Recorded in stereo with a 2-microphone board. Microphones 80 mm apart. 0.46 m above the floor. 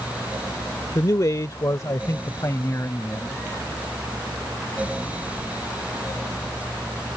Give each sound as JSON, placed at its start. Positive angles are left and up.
{"t": 0.9, "sound": "a man speaking", "side_deg": 50}